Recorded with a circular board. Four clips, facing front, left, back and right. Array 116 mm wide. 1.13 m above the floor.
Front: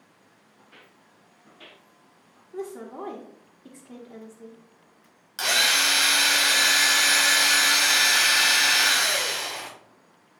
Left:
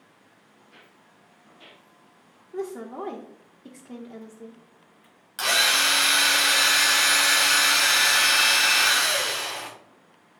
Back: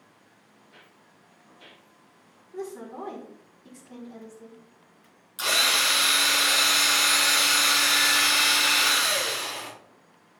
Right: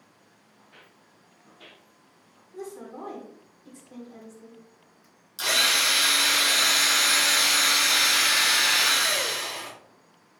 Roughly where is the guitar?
I don't hear a guitar.